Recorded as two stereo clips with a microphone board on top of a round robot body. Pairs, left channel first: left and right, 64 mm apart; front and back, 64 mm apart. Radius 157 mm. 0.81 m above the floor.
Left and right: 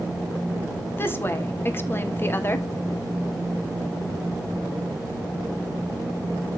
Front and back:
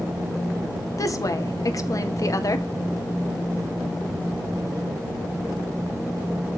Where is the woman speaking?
35° left, 2 m.